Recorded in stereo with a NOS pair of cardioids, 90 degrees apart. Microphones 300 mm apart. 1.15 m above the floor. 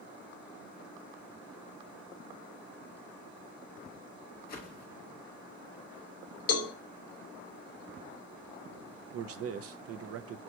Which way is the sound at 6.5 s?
55° left.